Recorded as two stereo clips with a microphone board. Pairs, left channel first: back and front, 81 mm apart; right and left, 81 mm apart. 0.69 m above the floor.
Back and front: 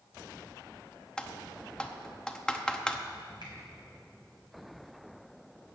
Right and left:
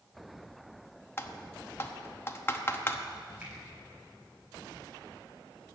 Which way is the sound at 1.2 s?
110° right.